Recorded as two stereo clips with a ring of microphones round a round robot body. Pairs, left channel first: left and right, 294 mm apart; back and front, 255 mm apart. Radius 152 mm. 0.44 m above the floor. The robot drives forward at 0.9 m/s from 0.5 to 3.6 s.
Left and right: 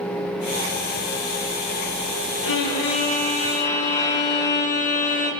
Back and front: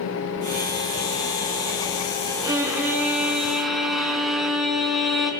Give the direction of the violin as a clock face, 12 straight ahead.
9 o'clock.